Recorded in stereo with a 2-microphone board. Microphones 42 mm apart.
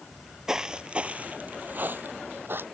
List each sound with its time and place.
0.1 s footsteps: centre (ahead or behind); by 2.6 s 60° right (ahead or behind)